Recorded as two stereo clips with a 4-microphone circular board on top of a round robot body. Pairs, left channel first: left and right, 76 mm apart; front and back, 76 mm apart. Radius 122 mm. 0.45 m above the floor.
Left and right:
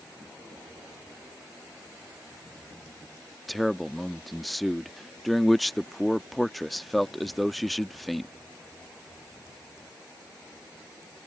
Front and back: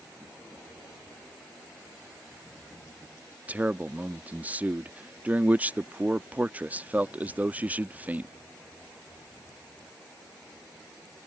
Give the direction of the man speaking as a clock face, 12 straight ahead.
6 o'clock.